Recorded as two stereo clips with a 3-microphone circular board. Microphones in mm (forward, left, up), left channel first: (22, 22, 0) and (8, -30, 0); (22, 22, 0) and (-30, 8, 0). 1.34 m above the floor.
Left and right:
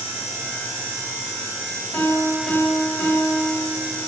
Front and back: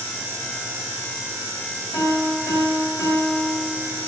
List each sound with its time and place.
1.9 s a piano: 25° left, 1.6 m